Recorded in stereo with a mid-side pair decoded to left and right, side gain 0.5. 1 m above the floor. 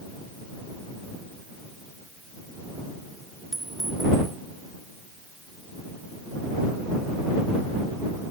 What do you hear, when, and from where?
3.5 s a clink: 10° right